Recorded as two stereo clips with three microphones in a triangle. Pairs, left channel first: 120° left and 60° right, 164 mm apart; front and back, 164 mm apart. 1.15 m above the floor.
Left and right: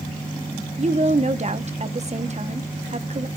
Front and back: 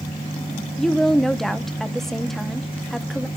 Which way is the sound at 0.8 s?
85° right.